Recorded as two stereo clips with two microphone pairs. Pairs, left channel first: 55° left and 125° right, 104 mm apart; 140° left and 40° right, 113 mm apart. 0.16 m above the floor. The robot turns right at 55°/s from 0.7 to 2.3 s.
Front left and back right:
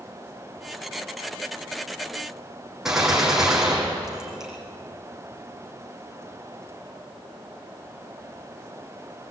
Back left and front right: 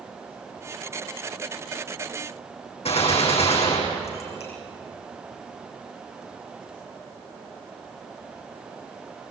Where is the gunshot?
150° left, 6.5 m.